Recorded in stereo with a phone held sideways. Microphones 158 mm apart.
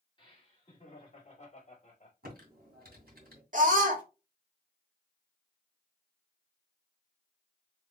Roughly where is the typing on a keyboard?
Right.